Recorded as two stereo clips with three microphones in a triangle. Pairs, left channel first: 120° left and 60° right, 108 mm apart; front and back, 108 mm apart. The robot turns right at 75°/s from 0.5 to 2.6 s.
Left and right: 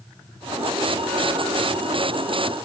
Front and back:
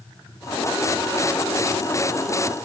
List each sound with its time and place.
Only background noise.